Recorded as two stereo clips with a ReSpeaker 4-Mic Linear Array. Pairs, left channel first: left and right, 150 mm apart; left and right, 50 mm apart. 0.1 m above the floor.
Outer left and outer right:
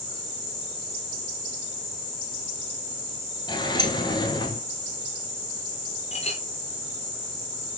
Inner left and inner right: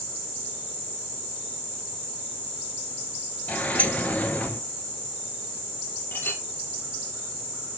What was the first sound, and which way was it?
A sliding door, 30° left (ahead or behind).